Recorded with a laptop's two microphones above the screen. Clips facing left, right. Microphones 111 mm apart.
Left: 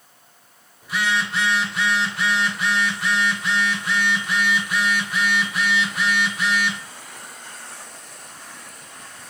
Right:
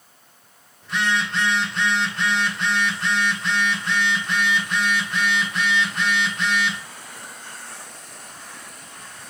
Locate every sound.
0.8 s a phone buzzing: 5° left (ahead or behind), 1.0 m